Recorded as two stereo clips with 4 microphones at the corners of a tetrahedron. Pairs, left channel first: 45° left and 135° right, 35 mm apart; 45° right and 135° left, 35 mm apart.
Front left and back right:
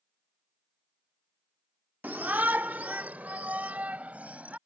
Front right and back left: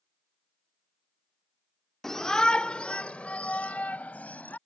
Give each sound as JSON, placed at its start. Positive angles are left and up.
{"t": 2.0, "sound": "a shout", "azimuth_deg": -125}